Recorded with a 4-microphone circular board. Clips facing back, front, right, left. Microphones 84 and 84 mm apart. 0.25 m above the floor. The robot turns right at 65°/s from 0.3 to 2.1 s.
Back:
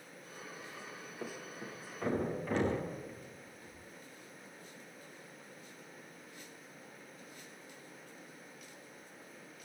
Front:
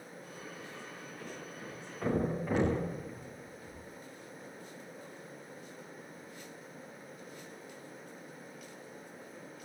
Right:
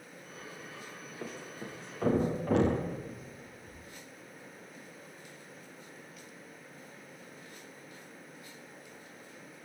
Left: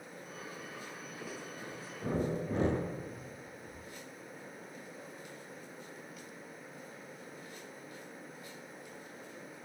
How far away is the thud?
About 10 m.